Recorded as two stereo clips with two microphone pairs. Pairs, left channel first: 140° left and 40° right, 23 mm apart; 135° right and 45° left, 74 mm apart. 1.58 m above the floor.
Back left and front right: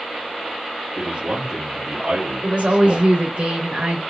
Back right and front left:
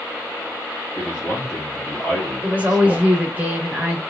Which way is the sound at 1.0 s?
70° right.